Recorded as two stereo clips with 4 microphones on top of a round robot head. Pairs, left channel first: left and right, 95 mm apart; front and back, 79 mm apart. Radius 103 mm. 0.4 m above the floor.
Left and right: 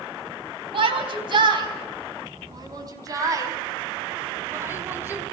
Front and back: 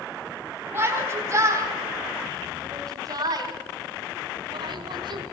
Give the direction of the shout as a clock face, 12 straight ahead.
4 o'clock.